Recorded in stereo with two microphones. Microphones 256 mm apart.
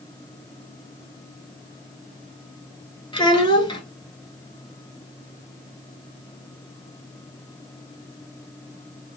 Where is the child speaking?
20° left (ahead or behind), 0.8 m.